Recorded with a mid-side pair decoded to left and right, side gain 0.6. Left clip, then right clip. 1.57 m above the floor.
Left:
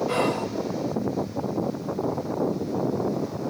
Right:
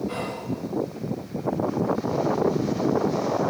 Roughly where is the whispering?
Ahead left.